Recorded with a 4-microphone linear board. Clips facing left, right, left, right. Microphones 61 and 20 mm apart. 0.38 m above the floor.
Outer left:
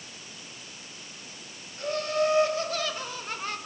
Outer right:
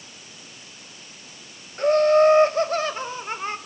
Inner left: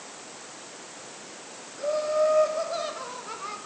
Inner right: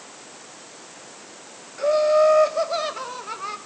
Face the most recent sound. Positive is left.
turn(degrees=-25)  # may be behind; listen again after turning